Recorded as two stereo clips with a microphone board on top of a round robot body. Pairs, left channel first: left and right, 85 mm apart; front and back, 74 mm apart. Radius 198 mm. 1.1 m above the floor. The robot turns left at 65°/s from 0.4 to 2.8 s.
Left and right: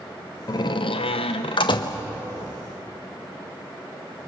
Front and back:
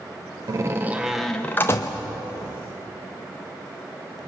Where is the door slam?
135° left, 0.9 m; by 2.0 s 40° left, 0.9 m.